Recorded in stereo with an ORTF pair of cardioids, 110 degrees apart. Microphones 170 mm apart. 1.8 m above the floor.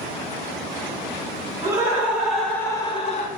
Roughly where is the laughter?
Ahead.